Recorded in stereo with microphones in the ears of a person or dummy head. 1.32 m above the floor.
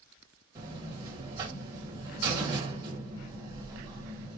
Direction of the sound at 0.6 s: 20° right (ahead or behind).